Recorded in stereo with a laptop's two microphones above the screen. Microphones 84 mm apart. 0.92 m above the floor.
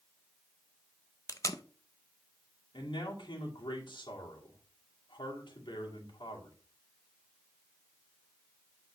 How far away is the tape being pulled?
About 0.7 m.